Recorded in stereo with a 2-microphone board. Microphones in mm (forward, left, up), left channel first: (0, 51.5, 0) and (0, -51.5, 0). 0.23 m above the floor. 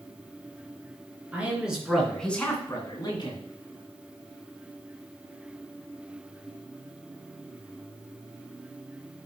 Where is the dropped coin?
No dropped coin in this recording.